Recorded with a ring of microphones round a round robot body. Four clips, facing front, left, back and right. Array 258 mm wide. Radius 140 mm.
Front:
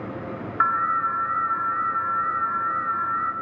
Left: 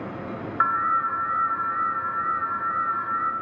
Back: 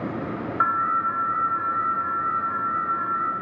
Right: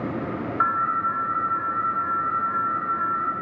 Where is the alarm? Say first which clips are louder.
Left 1 dB, front 1 dB; 35° left, 1.3 m.